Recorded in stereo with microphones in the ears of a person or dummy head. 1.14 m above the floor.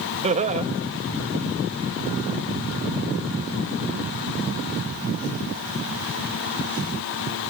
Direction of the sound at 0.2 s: 30° right (ahead or behind).